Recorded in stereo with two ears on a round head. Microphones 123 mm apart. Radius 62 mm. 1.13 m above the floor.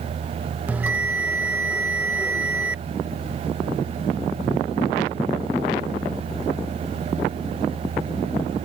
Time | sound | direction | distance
0.7 | a bell | 15° right (ahead or behind) | ?